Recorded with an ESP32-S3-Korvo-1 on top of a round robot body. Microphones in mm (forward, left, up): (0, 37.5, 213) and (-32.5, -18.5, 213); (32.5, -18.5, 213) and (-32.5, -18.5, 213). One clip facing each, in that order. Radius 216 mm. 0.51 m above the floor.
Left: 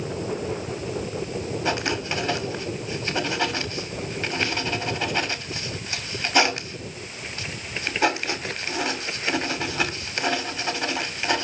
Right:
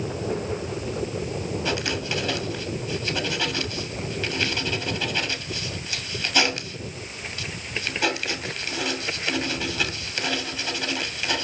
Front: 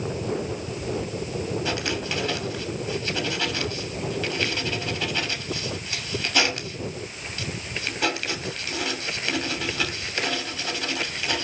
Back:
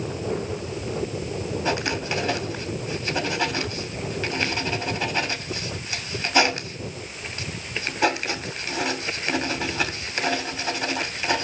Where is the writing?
115° left, 3 m.